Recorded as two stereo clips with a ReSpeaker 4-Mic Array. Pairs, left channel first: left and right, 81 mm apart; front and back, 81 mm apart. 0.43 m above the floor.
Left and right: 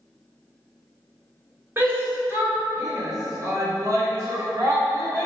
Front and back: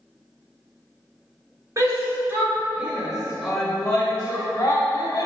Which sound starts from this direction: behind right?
A shout, at 1.8 s.